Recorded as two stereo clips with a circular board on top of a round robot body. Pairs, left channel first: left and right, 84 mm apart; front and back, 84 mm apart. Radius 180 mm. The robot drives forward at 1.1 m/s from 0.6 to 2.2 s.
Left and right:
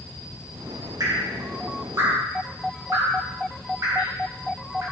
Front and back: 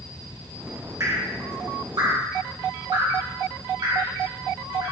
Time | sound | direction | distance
1.0 | dripping | 130° right | 3 m